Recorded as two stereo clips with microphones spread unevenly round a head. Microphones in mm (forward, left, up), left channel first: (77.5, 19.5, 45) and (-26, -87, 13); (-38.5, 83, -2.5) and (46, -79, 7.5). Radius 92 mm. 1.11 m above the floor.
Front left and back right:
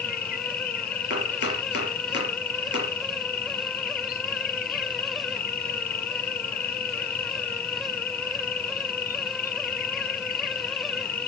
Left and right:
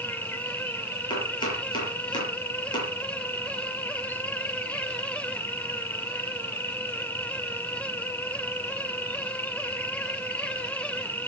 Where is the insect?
45° left, 1.4 m.